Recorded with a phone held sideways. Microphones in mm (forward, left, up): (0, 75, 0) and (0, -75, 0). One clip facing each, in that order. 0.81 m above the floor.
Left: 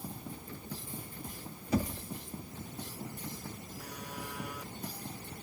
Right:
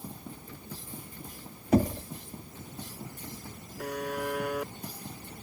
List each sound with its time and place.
1.7 s knocking: 55° right (ahead or behind)
3.8 s a buzzer: 75° right (ahead or behind)